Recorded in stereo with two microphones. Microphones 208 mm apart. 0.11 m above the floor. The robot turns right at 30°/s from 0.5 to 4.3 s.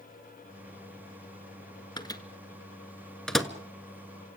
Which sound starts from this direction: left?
A microwave, at 2.0 s.